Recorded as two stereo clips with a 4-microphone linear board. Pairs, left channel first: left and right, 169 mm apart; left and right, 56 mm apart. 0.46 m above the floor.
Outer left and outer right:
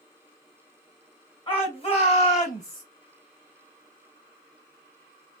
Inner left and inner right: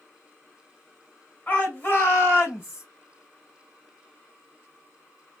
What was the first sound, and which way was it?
A shout, 30° left (ahead or behind).